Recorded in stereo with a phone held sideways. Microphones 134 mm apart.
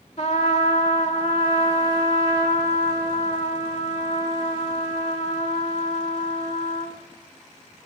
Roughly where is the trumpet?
Left.